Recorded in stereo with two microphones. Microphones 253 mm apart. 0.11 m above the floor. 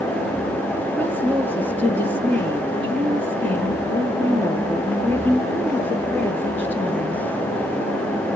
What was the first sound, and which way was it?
A woman speaking, 5° left (ahead or behind).